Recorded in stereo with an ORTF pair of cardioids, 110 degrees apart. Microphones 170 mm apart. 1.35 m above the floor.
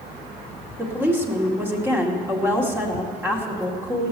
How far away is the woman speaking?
About 2 m.